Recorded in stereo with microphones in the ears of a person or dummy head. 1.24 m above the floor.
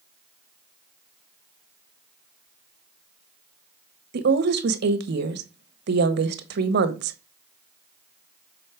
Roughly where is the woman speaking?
Right.